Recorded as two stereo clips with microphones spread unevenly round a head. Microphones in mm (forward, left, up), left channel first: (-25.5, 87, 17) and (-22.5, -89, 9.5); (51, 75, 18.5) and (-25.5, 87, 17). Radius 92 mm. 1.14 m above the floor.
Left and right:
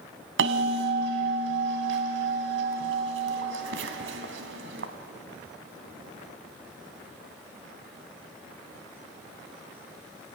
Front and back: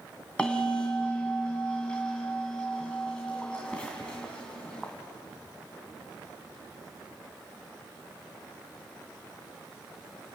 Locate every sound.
0.4 s a bell: 90° right, 2 m